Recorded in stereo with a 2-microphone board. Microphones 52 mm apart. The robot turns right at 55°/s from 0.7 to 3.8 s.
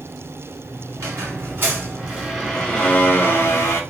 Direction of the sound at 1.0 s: 80° right.